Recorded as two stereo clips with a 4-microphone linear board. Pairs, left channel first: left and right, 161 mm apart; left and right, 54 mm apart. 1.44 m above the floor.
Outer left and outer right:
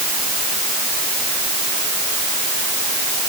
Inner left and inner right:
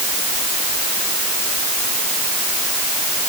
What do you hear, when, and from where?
Only background noise.